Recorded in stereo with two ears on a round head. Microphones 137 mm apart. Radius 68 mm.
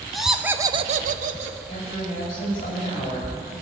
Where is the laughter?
Centre (ahead or behind), 1.2 m; by 1.6 s 45° right (ahead or behind), 1.1 m.